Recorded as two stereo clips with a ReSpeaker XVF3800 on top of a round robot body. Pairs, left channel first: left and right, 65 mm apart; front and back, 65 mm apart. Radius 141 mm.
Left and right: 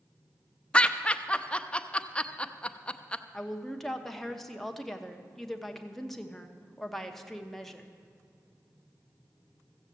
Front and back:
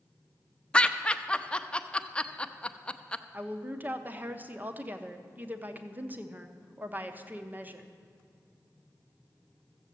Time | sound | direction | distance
0.7 | laughter | 50° left | 0.8 m
3.3 | a woman speaking | 170° left | 1.2 m